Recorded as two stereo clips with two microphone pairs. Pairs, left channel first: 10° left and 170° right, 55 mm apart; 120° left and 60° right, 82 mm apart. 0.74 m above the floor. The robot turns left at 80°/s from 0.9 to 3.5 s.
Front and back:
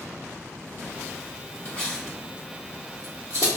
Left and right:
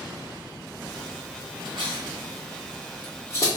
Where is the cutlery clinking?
50° right, 1.3 m; by 3.5 s 165° left, 1.3 m.